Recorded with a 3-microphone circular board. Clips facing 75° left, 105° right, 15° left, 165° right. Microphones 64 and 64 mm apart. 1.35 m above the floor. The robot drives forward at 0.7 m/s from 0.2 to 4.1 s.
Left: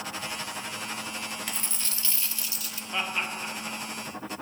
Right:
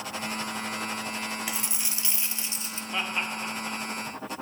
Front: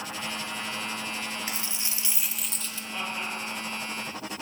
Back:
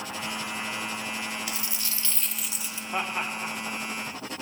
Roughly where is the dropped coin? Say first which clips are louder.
Right 2 dB, even; ahead right.